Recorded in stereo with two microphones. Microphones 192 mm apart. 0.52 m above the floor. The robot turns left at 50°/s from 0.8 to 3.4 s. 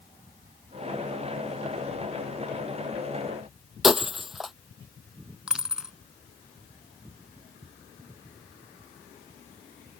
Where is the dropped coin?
5° right (ahead or behind).